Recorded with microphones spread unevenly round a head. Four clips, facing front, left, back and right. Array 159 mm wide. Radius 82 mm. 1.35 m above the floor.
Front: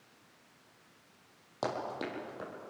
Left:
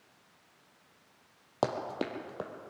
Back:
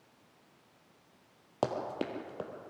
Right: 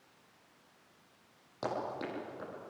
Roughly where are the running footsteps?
Behind left.